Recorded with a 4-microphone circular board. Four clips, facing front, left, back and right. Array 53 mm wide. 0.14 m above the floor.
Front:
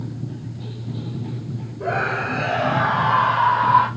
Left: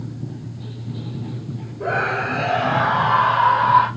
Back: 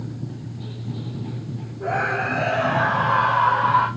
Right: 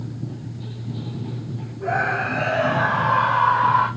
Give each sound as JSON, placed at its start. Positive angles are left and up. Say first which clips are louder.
{"t": 1.8, "sound": "a scream", "louder": "left 1 dB, even", "azimuth_deg": 70, "distance_m": 4.5}